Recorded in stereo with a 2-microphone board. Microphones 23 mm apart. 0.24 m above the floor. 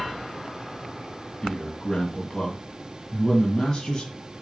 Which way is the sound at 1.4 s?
40° left (ahead or behind).